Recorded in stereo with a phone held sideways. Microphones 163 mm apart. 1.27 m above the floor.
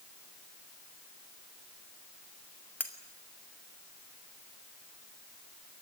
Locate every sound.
2.8 s cutlery clinking: 10° left (ahead or behind), 2.5 m